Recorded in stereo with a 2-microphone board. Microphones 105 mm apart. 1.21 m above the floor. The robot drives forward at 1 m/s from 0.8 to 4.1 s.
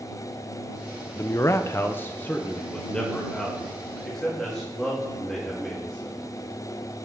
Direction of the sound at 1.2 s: 25° left (ahead or behind).